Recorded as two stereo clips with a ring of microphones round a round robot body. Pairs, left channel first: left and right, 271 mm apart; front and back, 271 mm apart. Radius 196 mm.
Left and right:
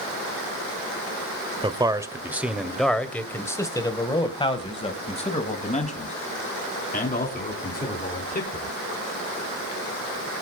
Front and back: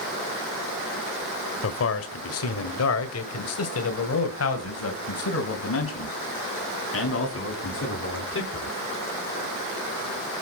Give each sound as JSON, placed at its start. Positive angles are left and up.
{"t": 1.6, "sound": "a man speaking", "azimuth_deg": -20, "distance_m": 1.5}